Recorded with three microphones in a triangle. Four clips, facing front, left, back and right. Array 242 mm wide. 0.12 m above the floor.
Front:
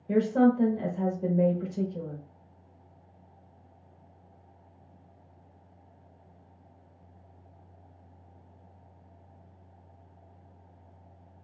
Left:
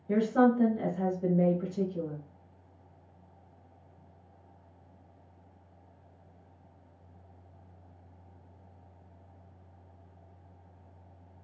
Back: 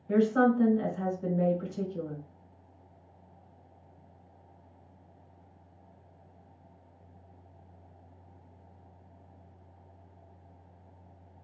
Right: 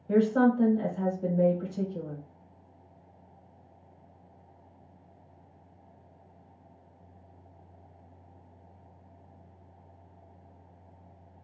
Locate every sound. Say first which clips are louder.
0.1 s a woman speaking: right 1 dB, front 1 dB; 5° left, 1.6 m